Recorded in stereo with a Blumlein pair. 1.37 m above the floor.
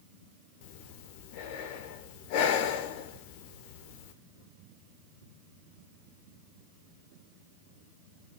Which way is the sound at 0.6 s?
45° left.